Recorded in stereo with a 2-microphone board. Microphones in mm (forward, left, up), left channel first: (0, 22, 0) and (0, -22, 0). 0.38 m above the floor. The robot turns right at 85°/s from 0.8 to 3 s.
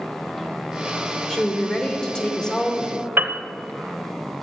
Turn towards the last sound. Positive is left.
turn(degrees=-55)  # may be behind; listen again after turning